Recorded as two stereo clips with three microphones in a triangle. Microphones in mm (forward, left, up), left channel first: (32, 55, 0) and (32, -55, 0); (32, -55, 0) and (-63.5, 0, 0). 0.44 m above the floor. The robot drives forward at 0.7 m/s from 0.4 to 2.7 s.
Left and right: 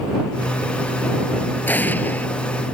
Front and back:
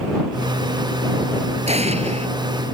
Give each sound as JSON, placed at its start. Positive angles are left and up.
{"t": 1.7, "sound": "an explosion", "azimuth_deg": 165}